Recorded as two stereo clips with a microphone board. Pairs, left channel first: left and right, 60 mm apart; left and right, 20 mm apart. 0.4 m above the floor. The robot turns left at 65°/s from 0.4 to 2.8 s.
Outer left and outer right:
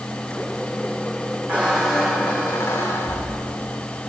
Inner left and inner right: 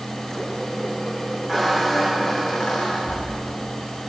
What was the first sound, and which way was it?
A squeak, 150° right.